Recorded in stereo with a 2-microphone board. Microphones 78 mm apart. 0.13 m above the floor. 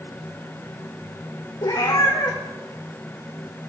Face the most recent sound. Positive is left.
turn(degrees=60)  # may be behind; listen again after turning